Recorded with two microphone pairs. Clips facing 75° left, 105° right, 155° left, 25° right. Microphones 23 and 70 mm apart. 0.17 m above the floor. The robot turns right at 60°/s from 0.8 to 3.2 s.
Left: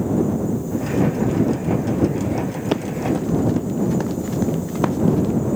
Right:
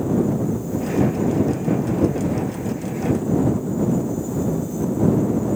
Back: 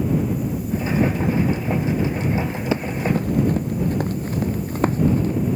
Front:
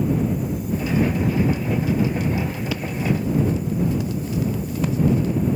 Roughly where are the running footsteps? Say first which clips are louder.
Left 3 dB, back 3 dB; left.